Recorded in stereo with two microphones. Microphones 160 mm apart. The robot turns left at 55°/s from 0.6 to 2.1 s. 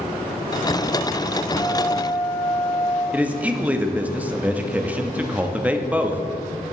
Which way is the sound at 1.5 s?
150° right.